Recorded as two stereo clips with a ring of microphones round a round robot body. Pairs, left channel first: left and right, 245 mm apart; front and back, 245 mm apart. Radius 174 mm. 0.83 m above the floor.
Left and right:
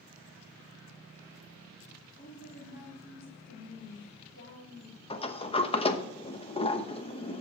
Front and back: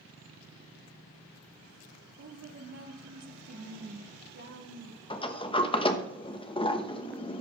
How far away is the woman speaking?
About 2 m.